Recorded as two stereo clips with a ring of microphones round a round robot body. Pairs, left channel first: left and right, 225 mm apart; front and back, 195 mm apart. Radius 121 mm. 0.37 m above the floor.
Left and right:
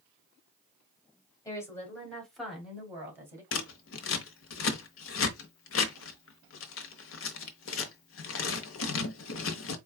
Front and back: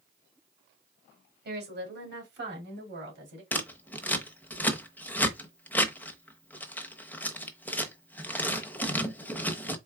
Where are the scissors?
80° left, 0.9 m.